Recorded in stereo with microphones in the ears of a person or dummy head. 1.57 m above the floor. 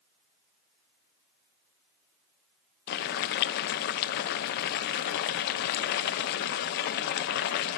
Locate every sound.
2.9 s boiling: 55° left (ahead or behind), 0.6 m